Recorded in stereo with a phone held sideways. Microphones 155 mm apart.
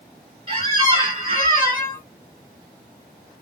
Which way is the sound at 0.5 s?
35° right (ahead or behind).